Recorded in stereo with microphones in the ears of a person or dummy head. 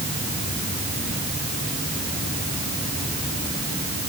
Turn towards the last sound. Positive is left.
No sound to turn to.